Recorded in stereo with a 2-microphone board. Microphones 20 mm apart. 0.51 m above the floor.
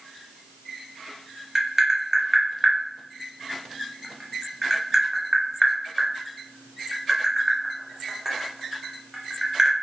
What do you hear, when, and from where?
1.6 s tapping: 25° right (ahead or behind), 0.7 m